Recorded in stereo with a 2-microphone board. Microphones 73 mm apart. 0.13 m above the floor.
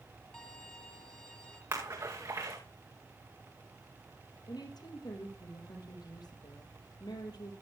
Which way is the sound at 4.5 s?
70° left (ahead or behind).